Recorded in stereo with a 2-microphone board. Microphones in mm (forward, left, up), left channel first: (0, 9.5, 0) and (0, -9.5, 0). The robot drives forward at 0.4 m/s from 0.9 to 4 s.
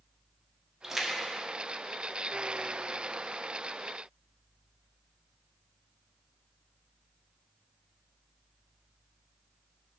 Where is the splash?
20° right (ahead or behind), 1.1 m; by 2.6 s 10° right (ahead or behind), 1.6 m.